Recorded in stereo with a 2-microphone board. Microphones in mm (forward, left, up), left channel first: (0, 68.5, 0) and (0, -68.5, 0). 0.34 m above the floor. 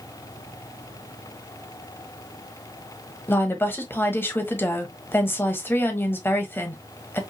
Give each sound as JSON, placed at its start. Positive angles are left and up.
{"t": 3.3, "sound": "a woman speaking", "side_deg": 15, "distance_m": 1.5}